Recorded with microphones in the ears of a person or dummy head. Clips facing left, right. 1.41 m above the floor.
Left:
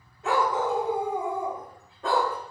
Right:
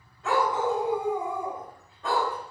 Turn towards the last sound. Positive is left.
turn(degrees=30)  # may be behind; listen again after turning